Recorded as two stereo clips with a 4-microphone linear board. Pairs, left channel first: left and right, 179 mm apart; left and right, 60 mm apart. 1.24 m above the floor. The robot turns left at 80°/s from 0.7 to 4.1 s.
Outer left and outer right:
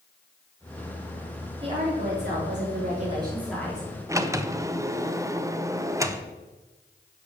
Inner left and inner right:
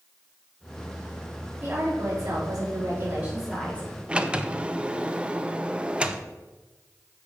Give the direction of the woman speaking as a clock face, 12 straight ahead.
1 o'clock.